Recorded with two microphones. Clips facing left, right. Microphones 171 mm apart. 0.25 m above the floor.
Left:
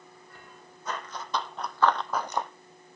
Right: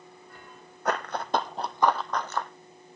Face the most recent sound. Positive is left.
turn(degrees=25)  # may be behind; listen again after turning